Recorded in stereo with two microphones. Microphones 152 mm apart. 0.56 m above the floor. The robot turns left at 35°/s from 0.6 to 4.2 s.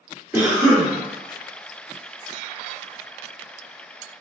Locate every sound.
0.3 s a cough: 10° right (ahead or behind), 1.1 m; by 0.9 s 15° right (ahead or behind), 1.1 m